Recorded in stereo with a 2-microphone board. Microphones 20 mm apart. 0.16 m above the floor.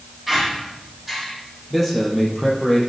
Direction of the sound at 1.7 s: 5° left (ahead or behind).